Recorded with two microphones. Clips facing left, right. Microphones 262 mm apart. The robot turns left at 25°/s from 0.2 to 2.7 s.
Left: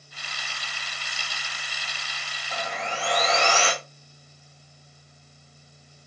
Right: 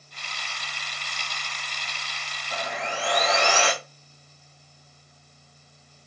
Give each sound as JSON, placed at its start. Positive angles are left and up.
{"t": 2.5, "sound": "sawing", "side_deg": -65, "distance_m": 5.0}